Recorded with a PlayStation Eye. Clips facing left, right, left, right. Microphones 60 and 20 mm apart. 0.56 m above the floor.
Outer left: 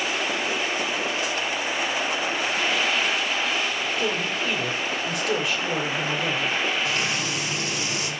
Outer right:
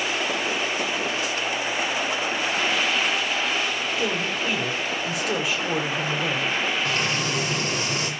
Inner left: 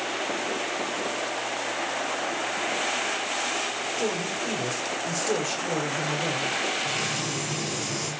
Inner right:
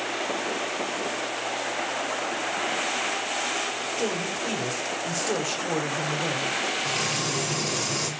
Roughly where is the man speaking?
Centre.